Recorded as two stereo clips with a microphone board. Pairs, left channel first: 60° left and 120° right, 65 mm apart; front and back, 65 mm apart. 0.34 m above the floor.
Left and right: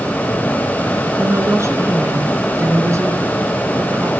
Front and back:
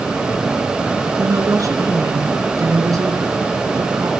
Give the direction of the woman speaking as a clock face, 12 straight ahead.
5 o'clock.